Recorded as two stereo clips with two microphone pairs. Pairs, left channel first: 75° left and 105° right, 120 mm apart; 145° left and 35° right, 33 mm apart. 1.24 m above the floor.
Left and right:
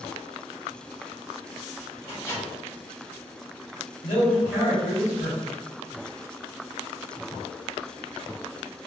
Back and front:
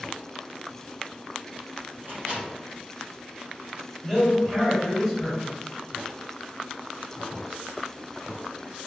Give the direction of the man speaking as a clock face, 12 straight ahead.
10 o'clock.